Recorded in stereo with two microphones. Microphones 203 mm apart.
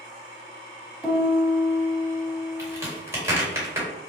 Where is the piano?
Centre (ahead or behind), 1.7 m.